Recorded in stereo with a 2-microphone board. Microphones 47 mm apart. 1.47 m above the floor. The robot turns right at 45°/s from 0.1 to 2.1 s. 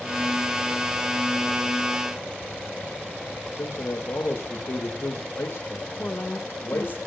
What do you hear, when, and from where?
3.5 s a man speaking: 75° left (ahead or behind), 2 m
6.0 s a woman speaking: 45° left (ahead or behind), 1.5 m